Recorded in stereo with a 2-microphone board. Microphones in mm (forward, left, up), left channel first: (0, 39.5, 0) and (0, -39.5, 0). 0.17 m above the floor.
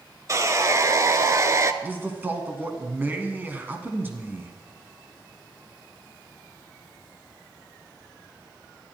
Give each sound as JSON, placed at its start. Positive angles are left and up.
{"t": 0.3, "sound": "sawing", "side_deg": -40, "distance_m": 0.6}
{"t": 1.8, "sound": "a man speaking", "side_deg": -25, "distance_m": 1.6}